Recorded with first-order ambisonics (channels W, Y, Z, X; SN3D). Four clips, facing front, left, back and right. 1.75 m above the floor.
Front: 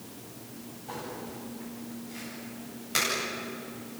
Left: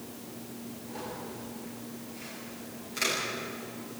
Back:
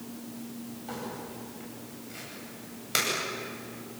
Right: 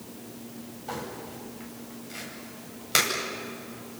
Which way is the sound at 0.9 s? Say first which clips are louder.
Right 4 dB, front 1 dB; 105° right.